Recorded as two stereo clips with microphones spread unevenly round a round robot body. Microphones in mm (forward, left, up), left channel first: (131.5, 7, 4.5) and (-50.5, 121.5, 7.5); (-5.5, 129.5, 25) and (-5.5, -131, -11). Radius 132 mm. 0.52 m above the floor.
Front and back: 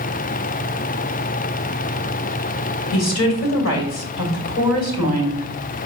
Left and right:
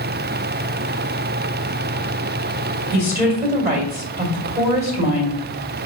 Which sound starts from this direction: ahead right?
A woman speaking, at 2.9 s.